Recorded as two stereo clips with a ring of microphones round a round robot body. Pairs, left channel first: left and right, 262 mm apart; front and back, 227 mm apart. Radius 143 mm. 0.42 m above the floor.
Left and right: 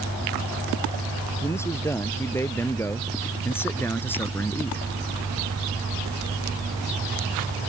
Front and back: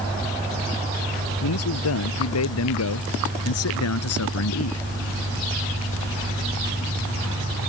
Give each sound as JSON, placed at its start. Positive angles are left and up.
{"t": 1.4, "sound": "a man speaking", "azimuth_deg": 10}